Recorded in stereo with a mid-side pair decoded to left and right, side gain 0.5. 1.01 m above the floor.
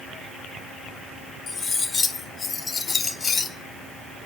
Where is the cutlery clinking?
40° left, 1.6 m.